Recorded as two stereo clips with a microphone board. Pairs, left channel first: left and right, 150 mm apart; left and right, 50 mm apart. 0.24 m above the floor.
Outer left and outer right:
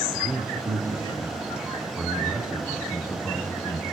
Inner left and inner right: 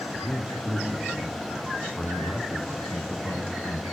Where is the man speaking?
20° right (ahead or behind), 3.5 m; by 3.8 s 15° left (ahead or behind), 1.8 m.